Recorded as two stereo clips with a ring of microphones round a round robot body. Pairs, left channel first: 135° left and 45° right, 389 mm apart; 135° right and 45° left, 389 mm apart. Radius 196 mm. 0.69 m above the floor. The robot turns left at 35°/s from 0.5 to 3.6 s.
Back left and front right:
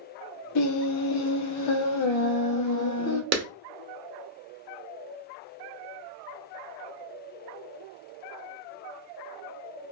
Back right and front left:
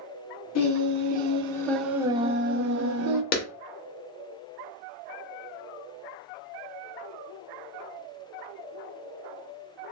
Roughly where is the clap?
Right.